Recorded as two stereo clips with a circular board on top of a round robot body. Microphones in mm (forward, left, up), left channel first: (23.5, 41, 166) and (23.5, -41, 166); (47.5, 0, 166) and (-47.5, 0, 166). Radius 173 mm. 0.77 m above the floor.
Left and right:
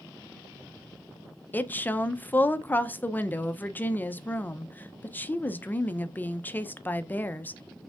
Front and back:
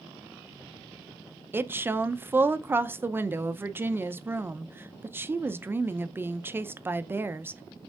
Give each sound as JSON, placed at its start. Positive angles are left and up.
{"t": 1.5, "sound": "a woman speaking", "azimuth_deg": 135, "distance_m": 0.6}